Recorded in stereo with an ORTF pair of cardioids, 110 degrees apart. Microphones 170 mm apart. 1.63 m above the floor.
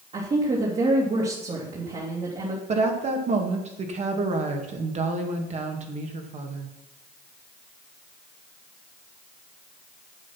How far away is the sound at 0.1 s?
About 3 m.